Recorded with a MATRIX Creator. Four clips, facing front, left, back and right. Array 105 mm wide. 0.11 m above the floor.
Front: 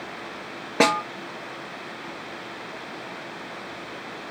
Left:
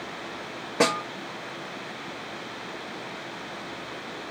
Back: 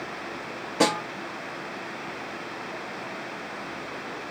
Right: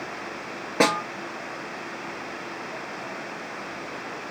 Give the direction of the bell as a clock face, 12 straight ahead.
No bell in this recording.